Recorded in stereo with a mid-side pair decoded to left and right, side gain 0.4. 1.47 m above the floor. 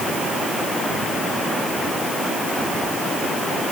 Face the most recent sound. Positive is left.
No sound to turn to.